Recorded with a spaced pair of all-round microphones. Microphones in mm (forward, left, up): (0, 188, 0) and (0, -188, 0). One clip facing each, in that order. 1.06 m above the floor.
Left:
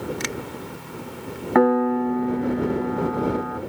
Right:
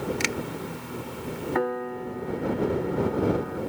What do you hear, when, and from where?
0.2 s a finger snap: 40° right (ahead or behind)
1.6 s a piano: 70° left (ahead or behind)